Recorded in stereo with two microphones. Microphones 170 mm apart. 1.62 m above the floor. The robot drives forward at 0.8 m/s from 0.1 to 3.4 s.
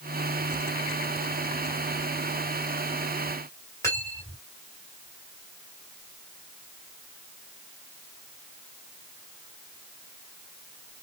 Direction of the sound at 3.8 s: 15° left (ahead or behind).